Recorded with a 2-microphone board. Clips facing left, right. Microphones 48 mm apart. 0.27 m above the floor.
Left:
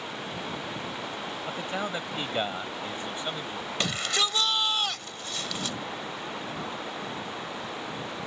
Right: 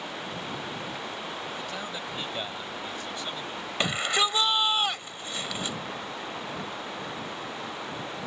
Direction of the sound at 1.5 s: 25° left (ahead or behind).